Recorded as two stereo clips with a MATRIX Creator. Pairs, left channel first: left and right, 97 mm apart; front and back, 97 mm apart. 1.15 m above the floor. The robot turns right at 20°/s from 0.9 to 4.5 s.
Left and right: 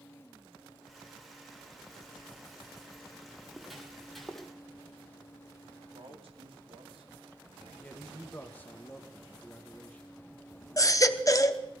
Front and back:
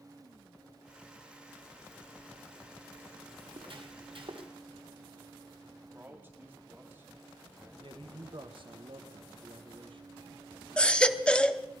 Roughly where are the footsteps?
Behind.